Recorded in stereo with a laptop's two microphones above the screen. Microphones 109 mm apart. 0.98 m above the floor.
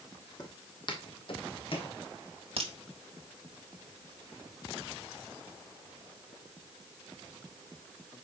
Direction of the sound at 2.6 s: 60° right (ahead or behind).